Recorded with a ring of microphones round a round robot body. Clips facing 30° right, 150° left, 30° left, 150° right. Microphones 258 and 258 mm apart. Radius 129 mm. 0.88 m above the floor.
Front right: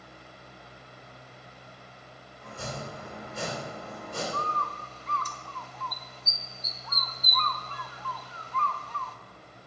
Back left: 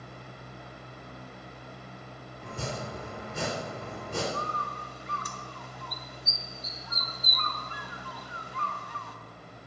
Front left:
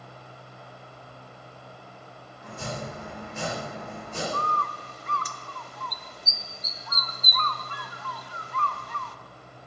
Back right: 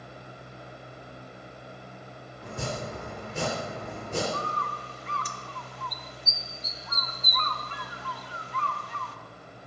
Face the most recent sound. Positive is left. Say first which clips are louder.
# even, front left 1 dB
turn(degrees=75)